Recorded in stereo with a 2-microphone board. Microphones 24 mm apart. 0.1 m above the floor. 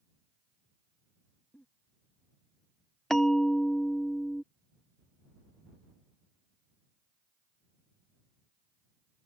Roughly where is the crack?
No crack in this recording.